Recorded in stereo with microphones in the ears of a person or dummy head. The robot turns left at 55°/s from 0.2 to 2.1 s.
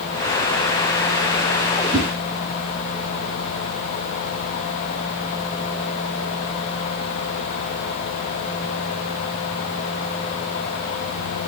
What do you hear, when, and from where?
1.9 s a whoosh: 20° right (ahead or behind), 3 m; by 2.1 s 25° right (ahead or behind), 3 m